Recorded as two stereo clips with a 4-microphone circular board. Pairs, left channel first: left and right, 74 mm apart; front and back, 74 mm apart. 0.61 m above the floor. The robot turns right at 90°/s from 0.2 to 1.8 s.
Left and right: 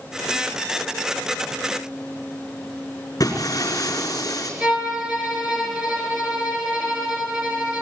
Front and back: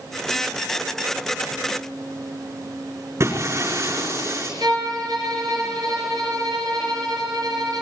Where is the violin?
155° right, 7.5 m.